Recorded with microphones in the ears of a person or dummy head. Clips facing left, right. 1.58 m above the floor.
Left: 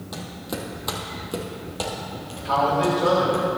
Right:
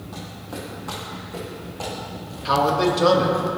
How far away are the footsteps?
About 3 m.